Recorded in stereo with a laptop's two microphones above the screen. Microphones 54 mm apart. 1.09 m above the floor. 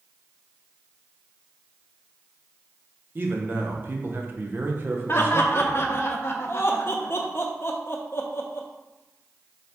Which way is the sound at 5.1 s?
45° left (ahead or behind).